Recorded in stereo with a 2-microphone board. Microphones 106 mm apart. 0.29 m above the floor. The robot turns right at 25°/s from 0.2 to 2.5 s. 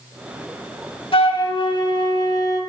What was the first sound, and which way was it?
A flute, 100° left.